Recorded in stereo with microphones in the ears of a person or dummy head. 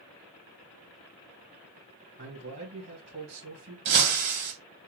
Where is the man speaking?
40° right (ahead or behind), 2.5 m.